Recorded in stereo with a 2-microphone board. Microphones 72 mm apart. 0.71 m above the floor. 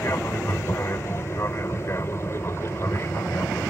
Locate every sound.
0.0 s an aircraft: 35° left (ahead or behind)